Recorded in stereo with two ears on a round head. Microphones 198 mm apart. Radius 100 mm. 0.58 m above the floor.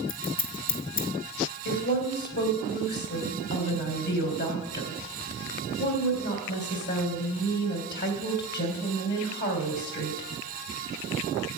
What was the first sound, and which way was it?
Scissors, 60° left (ahead or behind).